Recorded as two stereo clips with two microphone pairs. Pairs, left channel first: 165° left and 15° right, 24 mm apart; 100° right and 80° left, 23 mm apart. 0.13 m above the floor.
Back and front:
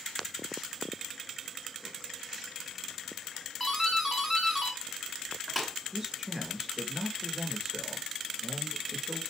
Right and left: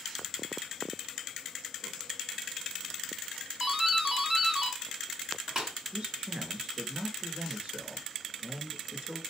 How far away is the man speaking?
About 2 m.